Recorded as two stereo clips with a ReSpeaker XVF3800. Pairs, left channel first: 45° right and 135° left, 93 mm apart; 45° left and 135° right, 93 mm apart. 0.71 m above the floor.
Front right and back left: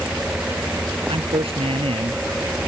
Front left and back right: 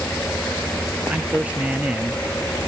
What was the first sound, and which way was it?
A man speaking, 150° left.